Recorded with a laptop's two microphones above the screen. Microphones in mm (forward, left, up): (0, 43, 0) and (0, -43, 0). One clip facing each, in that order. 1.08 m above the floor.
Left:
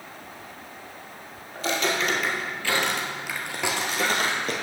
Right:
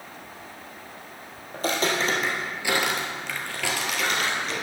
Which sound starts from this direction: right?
Footsteps, at 1.5 s.